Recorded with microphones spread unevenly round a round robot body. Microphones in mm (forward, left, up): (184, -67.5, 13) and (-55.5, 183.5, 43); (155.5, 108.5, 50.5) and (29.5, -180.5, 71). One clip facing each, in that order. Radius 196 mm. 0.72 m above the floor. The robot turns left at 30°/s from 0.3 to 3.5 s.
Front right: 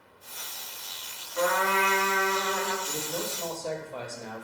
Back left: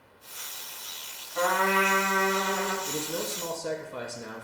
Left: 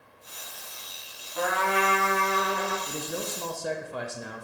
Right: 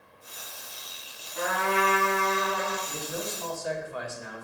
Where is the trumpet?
125° left, 0.9 m; by 2.8 s 85° left, 0.9 m.